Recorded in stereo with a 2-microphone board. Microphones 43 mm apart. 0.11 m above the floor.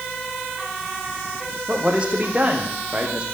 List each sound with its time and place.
1.7 s a man speaking: 30° right (ahead or behind), 5 m